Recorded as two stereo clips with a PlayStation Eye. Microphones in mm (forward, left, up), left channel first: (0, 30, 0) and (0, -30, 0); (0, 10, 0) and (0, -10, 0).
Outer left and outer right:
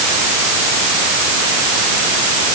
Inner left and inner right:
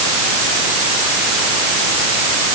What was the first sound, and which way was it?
Only background noise.